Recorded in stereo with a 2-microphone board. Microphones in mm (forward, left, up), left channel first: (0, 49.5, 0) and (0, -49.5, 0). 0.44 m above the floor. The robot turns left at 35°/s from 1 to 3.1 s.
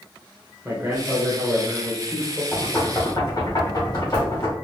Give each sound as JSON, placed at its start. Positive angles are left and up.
{"t": 0.7, "sound": "a man speaking", "azimuth_deg": -145, "distance_m": 1.2}
{"t": 2.5, "sound": "knocking", "side_deg": 20, "distance_m": 2.0}